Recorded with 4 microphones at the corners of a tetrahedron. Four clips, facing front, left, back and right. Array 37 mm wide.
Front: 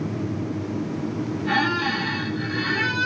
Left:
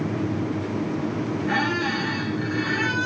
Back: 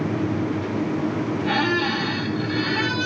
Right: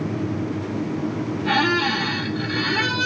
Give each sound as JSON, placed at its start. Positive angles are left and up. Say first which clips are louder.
{"t": 1.4, "sound": "a squeak", "louder": "right 5 dB, even", "azimuth_deg": -100, "distance_m": 2.0}